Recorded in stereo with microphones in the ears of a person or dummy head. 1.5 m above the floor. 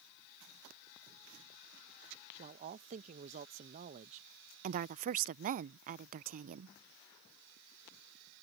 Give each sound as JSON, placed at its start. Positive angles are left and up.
{"t": 2.4, "sound": "a man speaking", "side_deg": -40}
{"t": 4.6, "sound": "a woman speaking", "side_deg": -45}